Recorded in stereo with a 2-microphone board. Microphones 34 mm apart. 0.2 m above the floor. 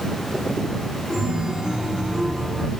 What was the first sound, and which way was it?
A chime, 20° right (ahead or behind).